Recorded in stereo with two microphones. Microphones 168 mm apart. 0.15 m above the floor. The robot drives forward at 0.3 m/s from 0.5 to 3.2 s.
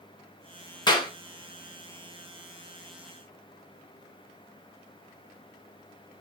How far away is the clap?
About 1.1 m.